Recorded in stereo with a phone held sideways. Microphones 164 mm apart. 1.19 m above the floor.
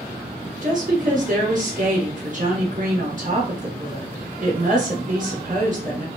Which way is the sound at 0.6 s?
50° right (ahead or behind).